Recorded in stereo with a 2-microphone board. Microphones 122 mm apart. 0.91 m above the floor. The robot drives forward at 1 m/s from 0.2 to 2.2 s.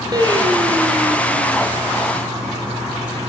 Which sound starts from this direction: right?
Singing, at 0.1 s.